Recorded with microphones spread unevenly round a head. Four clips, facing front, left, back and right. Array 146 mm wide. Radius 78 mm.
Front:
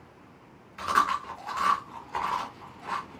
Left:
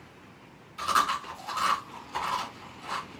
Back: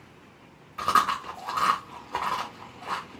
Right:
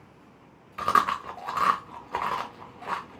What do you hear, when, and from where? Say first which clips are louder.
0.8 s chewing: right 3 dB, back 2 dB; 105° right, 0.9 m